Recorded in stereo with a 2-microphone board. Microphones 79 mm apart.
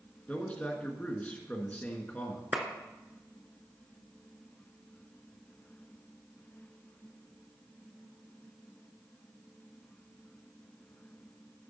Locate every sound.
0.3 s a man speaking: 20° left (ahead or behind), 1.8 m
2.5 s a clap: 15° right (ahead or behind), 1.2 m